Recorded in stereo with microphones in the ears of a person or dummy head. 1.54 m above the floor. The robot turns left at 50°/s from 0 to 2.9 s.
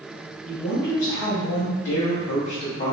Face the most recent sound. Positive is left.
turn(degrees=45)